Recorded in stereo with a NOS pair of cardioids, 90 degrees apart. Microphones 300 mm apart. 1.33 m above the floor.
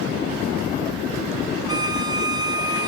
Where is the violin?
15° right, 0.9 m.